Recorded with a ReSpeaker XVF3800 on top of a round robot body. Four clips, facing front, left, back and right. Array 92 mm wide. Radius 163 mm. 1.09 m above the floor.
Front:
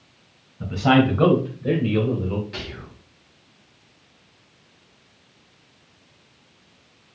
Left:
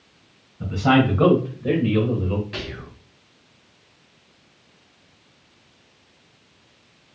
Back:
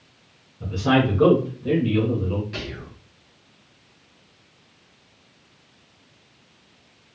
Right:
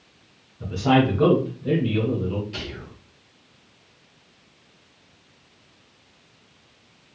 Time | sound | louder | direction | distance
0.6 | a man speaking | left 1 dB, front 2 dB | 35° left | 2 m
2.5 | whispering | left 2 dB, back 2 dB | 90° left | 1.9 m